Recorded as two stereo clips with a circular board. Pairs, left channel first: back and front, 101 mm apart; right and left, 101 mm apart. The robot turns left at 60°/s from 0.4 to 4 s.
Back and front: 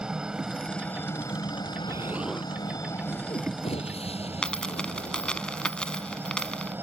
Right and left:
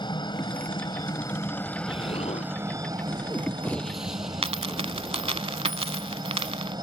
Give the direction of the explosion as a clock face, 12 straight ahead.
2 o'clock.